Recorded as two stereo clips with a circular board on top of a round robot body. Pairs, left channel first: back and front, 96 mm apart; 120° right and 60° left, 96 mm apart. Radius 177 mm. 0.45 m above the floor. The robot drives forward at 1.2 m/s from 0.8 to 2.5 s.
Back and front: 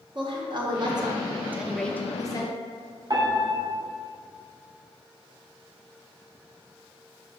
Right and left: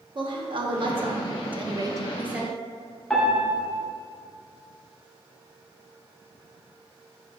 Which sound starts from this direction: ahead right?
A piano, at 3.1 s.